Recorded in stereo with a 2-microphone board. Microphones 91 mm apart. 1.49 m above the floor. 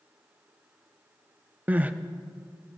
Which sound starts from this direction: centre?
Crying, at 1.7 s.